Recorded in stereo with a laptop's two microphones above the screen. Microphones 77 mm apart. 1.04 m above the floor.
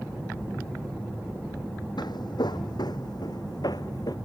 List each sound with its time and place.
2.0 s footsteps: 70° left (ahead or behind); by 4.2 s 55° left (ahead or behind)